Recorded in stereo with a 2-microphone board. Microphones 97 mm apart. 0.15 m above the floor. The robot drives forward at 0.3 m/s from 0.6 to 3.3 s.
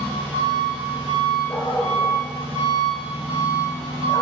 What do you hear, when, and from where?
0.0 s an engine running: 55° right (ahead or behind), 1.6 m; by 4.2 s 80° right, 1.3 m
1.5 s a dog barking: 60° left (ahead or behind), 0.5 m; by 4.2 s 30° left (ahead or behind), 0.8 m